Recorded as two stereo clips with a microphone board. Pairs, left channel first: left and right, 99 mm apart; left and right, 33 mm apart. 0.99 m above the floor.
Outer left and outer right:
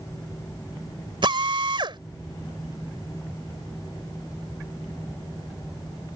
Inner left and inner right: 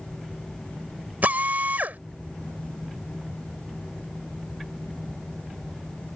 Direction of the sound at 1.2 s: 55° right (ahead or behind).